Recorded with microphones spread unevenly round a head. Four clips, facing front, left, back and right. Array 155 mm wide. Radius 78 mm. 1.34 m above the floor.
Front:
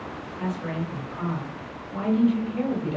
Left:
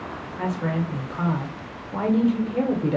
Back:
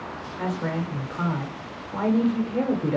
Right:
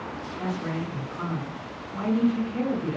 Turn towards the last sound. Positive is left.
turn(degrees=125)